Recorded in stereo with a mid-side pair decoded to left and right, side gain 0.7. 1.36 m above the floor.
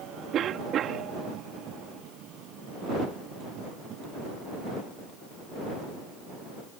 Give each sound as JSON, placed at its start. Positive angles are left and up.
{"t": 0.3, "sound": "a cough", "azimuth_deg": -45}